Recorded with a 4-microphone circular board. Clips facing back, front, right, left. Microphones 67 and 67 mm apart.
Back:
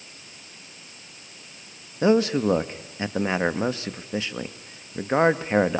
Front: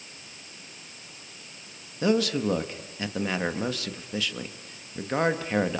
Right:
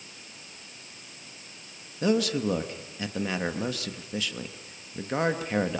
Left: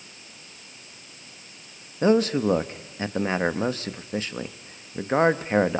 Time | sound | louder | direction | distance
2.0 | a man speaking | back 5 dB, left 5 dB | 130° left | 1.0 m